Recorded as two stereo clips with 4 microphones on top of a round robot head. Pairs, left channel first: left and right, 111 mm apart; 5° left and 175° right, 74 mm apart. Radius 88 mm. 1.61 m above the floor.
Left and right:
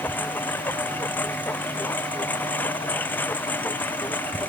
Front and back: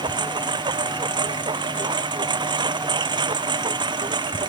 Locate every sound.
0.0 s a lawn mower: 165° left